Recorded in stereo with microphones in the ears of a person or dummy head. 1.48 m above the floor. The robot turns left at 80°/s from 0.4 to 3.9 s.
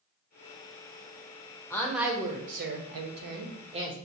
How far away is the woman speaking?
About 0.8 m.